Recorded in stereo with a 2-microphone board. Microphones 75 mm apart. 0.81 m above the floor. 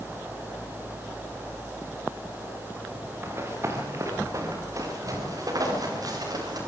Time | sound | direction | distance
3.2 | running footsteps | 30° right (ahead or behind) | 4.5 m